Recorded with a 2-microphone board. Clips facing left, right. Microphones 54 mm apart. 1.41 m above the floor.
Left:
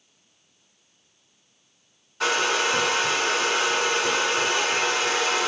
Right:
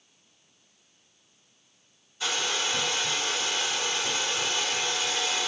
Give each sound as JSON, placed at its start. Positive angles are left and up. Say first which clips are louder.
{"t": 2.2, "sound": "a hair dryer", "louder": "left 7 dB", "side_deg": 65, "distance_m": 1.9}